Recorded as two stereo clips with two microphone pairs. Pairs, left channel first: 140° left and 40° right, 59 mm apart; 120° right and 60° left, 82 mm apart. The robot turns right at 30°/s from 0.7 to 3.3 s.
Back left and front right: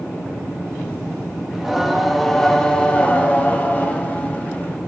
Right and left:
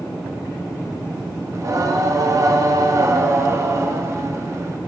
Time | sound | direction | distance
1.5 | singing | 40° left | 0.7 m